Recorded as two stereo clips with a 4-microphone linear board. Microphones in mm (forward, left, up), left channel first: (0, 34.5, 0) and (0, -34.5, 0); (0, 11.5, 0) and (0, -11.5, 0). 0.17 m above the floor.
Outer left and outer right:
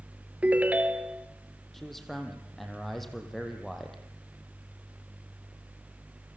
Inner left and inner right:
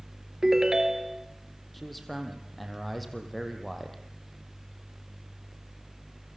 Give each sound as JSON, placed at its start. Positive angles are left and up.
{"t": 0.4, "sound": "a ringtone", "side_deg": -20, "distance_m": 1.4}
{"t": 1.7, "sound": "a man speaking", "side_deg": 5, "distance_m": 5.0}